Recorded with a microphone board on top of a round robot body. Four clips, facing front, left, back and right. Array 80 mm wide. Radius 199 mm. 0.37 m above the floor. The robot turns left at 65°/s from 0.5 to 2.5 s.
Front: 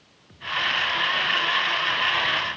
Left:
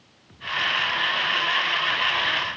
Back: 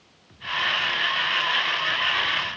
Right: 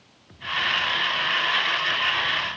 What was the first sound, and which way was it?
Only background noise.